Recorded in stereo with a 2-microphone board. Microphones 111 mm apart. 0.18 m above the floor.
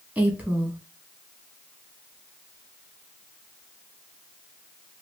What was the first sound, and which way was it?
A woman speaking, 15° right (ahead or behind).